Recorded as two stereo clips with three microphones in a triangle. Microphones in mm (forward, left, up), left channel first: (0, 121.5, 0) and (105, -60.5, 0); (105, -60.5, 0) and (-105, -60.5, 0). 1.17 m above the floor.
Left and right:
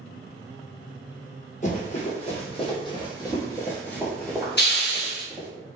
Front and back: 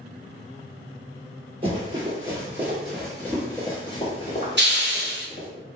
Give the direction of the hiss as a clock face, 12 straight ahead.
7 o'clock.